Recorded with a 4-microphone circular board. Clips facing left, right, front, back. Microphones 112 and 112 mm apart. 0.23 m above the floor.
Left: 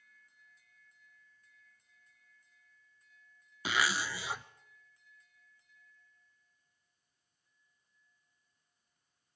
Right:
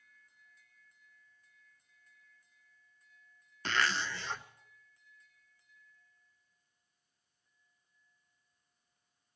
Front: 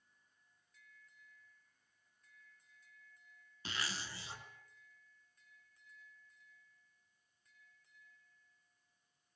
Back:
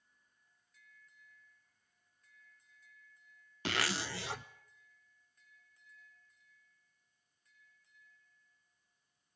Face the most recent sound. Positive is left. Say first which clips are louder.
# even, back 8 dB
turn(degrees=170)